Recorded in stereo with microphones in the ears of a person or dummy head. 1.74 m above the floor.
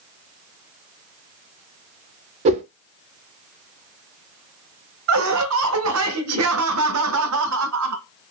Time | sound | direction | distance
2.5 | a whoosh | 35° right (ahead or behind) | 0.5 m
5.1 | laughter | 80° right | 0.5 m